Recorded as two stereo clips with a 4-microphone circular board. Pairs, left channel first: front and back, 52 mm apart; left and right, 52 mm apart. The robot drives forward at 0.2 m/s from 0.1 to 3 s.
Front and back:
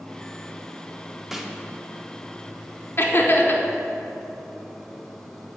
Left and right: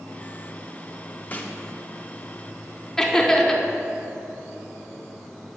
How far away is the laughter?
About 0.9 m.